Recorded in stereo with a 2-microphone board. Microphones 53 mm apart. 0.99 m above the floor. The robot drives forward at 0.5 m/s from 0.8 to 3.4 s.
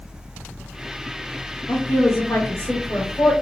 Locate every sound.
1.7 s a woman speaking: 70° left (ahead or behind), 1.7 m; by 3.3 s 65° left (ahead or behind), 1.7 m